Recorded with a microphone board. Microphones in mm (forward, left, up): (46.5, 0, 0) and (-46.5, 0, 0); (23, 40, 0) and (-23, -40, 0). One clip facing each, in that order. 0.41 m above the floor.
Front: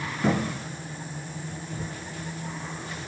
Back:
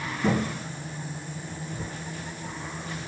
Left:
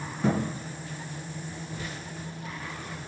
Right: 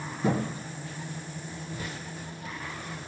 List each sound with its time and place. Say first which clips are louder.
0.2 s a thud: even, left 1 dB; 35° left, 2.5 m